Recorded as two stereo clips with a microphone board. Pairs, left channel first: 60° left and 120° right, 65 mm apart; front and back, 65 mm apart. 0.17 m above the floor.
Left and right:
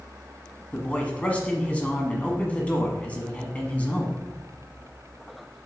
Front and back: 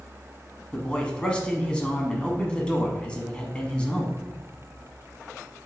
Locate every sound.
0.7 s a man speaking: 40° left, 1.0 m